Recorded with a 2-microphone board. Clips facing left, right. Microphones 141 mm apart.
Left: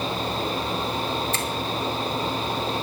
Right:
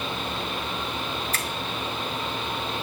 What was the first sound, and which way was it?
A finger snap, 25° left (ahead or behind).